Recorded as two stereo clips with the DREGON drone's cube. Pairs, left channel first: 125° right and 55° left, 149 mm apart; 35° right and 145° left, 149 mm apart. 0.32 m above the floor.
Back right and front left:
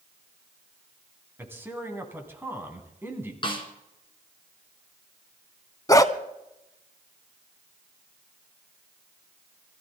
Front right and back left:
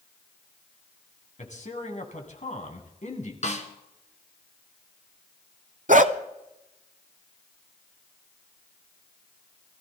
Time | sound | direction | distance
1.4 | a man speaking | 15° right | 3 m
3.4 | a snare drum | 70° right | 2.5 m
5.9 | a dog barking | 170° left | 0.8 m